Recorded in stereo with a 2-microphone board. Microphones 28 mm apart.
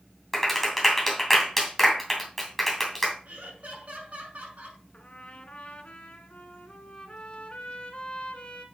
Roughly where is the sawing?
I don't hear sawing.